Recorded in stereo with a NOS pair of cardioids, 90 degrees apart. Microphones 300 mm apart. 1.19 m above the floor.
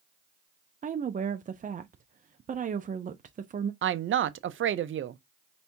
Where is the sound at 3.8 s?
40° right, 0.6 m.